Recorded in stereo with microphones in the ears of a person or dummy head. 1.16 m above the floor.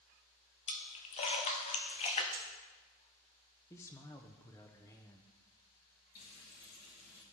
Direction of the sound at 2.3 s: 35° right (ahead or behind).